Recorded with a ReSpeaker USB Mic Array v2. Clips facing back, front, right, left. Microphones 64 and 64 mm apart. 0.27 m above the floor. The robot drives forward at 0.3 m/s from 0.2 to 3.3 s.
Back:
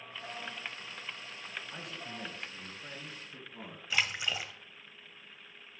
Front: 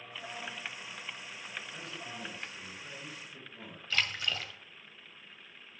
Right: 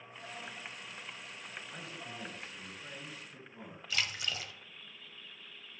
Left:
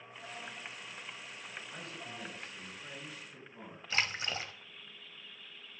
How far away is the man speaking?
About 1.6 m.